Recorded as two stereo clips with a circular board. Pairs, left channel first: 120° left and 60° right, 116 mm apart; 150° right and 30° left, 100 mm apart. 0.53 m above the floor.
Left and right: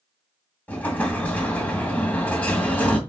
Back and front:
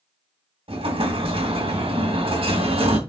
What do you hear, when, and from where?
0.7 s an explosion: 45° left, 2.5 m